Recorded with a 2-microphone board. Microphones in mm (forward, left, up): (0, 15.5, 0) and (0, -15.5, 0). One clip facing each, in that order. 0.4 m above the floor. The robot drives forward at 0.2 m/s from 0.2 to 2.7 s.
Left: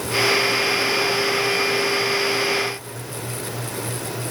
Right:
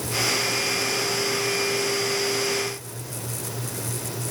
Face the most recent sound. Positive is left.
No sound to turn to.